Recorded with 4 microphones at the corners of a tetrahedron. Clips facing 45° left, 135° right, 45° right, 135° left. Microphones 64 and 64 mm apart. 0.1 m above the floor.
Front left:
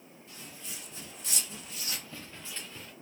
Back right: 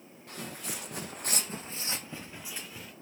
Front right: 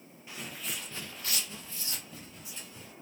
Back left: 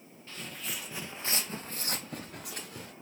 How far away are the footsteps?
About 0.9 m.